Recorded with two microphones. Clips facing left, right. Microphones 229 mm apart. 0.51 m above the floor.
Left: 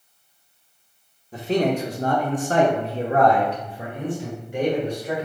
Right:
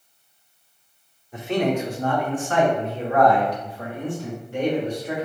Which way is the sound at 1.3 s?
35° left (ahead or behind).